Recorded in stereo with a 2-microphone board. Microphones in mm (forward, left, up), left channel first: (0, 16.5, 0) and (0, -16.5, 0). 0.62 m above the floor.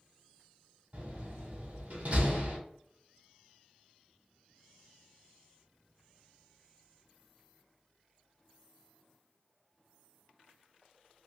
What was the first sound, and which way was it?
A door slam, 45° right (ahead or behind).